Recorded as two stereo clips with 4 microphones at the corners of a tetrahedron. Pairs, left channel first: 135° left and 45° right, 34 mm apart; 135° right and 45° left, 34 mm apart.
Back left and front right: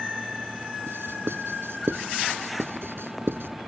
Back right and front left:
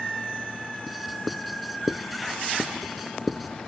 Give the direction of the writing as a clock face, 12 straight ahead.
1 o'clock.